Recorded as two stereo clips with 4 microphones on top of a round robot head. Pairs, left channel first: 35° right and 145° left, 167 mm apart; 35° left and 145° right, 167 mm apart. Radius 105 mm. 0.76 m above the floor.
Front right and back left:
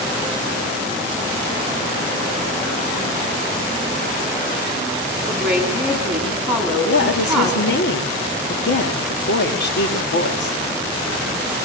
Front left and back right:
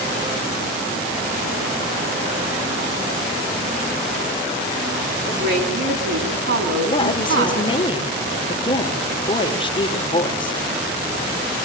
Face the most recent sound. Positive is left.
turn(degrees=-25)